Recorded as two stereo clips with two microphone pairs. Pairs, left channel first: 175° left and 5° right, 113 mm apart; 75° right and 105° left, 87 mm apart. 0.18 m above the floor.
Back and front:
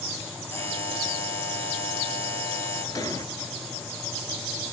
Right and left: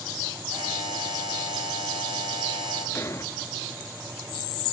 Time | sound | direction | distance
0.5 | a buzzer | 110° left | 4 m
3.0 | an explosion | 125° right | 0.9 m